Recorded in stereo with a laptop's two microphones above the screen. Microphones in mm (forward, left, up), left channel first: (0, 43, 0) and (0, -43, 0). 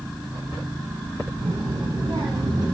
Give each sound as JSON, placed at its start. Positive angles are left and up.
{"t": 1.4, "sound": "a child speaking", "side_deg": -45, "distance_m": 4.5}